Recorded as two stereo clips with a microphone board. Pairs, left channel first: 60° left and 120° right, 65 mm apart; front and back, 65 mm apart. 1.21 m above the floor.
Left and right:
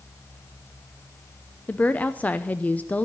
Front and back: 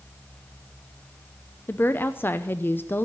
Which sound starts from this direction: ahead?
A woman speaking, at 1.7 s.